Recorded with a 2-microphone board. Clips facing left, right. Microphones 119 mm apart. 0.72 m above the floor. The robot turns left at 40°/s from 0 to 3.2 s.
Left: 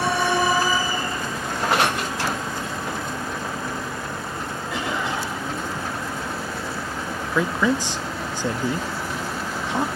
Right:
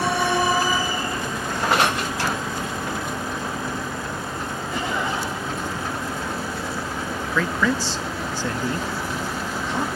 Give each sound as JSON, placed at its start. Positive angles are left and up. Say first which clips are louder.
{"t": 4.7, "sound": "a cough", "louder": "right 1 dB", "side_deg": 75, "distance_m": 8.0}
{"t": 7.3, "sound": "a man speaking", "louder": "left 2 dB", "side_deg": 15, "distance_m": 0.6}